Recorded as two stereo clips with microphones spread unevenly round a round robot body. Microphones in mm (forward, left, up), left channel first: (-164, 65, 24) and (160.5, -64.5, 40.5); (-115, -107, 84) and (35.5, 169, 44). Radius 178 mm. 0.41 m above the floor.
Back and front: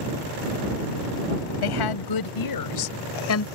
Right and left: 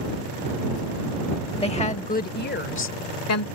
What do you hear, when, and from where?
1.6 s a woman speaking: 165° left; by 3.5 s 155° right